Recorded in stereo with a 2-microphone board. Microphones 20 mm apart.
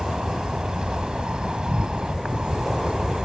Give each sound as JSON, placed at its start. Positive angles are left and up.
{"t": 0.0, "sound": "an insect", "side_deg": -45}